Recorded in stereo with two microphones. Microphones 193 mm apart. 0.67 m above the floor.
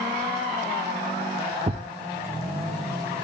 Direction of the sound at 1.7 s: 40° right (ahead or behind).